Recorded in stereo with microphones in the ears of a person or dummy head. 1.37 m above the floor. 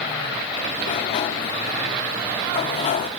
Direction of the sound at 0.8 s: 40° left (ahead or behind).